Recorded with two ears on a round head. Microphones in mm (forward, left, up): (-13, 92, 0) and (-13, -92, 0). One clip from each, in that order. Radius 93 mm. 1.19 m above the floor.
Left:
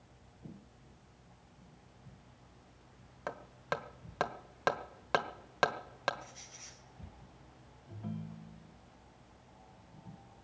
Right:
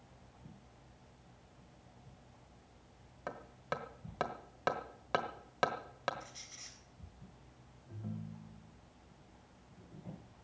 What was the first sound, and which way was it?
Hammering, 20° left (ahead or behind).